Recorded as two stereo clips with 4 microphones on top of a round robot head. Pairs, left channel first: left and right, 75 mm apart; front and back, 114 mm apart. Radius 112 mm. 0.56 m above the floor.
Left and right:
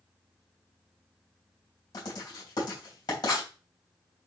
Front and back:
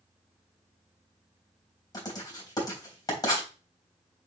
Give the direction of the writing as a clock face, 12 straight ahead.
10 o'clock.